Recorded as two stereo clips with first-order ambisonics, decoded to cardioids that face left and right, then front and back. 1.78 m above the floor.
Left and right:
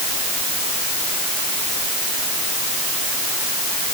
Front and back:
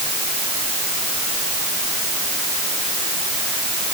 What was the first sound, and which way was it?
Only background noise.